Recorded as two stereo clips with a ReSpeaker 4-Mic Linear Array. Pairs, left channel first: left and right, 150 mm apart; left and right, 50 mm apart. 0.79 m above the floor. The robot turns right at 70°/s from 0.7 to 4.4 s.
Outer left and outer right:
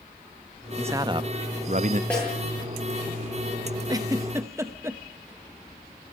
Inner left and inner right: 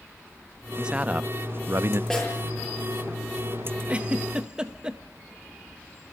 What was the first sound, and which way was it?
A man speaking, 165° right.